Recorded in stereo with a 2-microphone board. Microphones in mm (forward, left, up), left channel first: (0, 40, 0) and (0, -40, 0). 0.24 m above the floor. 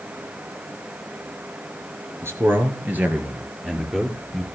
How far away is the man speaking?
About 3 m.